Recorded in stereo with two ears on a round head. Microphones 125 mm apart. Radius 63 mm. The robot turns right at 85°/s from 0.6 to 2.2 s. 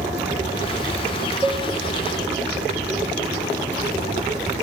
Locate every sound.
1.4 s a cowbell: 20° right (ahead or behind), 0.6 m; by 1.6 s 10° right (ahead or behind), 0.6 m